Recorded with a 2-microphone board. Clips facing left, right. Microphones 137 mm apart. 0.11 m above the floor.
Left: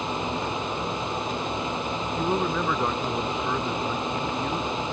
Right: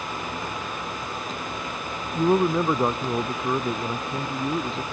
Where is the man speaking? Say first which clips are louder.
Right 7 dB; 25° right (ahead or behind).